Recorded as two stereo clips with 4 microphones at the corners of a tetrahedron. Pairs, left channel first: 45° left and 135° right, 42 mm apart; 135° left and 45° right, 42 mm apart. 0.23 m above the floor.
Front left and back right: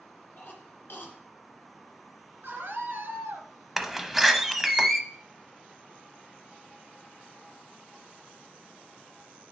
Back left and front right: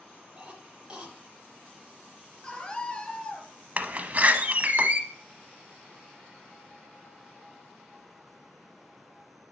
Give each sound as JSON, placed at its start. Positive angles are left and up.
{"t": 0.4, "sound": "a cough", "azimuth_deg": 25, "distance_m": 3.0}
{"t": 2.4, "sound": "a scream", "azimuth_deg": -165, "distance_m": 4.0}
{"t": 3.8, "sound": "a door slam", "azimuth_deg": -50, "distance_m": 0.8}